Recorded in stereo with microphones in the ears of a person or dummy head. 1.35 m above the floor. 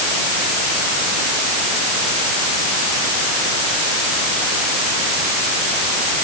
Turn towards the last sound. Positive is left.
No sound to turn to.